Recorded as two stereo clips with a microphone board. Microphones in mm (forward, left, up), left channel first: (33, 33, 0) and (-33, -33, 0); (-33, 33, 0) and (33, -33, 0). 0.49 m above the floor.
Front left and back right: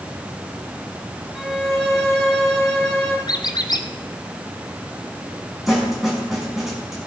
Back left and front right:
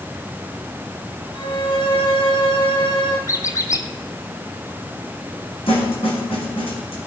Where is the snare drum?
135° left, 5 m.